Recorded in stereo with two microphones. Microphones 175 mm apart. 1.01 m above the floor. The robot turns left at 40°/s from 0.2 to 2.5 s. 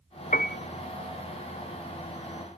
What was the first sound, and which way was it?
A piano, 50° left (ahead or behind).